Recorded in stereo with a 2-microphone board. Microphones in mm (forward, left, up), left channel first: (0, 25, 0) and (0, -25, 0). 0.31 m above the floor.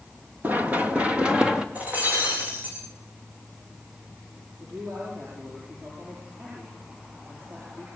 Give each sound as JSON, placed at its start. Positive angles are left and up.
{"t": 0.4, "sound": "running footsteps", "side_deg": -35, "distance_m": 2.5}
{"t": 1.8, "sound": "breaking glass", "side_deg": -35, "distance_m": 8.5}
{"t": 4.6, "sound": "a man speaking", "side_deg": -55, "distance_m": 8.5}